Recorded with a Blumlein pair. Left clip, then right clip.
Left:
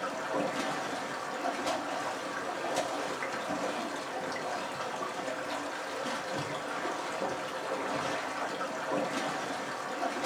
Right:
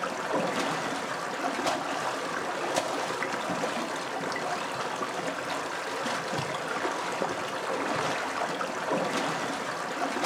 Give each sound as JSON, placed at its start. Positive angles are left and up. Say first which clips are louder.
{"t": 0.0, "sound": "running water", "louder": "right 3 dB", "azimuth_deg": -20, "distance_m": 1.1}